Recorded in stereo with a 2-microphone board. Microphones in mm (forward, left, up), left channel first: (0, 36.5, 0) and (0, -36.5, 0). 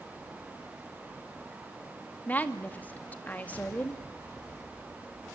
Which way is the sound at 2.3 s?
20° left (ahead or behind).